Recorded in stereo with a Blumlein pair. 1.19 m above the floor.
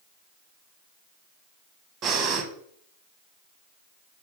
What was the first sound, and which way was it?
Breathing, 25° right.